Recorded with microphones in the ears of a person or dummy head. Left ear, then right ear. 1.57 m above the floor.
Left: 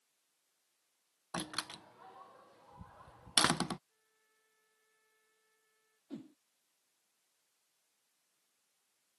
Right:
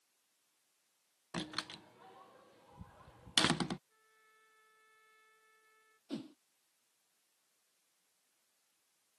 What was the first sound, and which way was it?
A door slam, 5° left (ahead or behind).